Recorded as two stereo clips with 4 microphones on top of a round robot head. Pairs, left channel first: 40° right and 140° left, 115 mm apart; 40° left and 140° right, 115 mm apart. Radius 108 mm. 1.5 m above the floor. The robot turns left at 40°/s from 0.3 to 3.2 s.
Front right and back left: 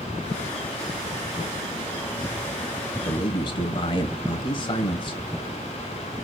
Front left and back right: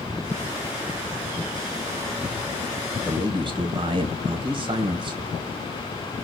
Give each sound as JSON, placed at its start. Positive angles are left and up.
{"t": 3.0, "sound": "a man speaking", "azimuth_deg": -85, "distance_m": 1.3}